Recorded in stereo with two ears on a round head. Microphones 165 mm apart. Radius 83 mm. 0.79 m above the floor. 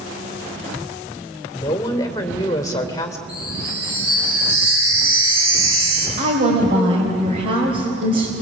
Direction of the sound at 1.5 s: 15° left (ahead or behind).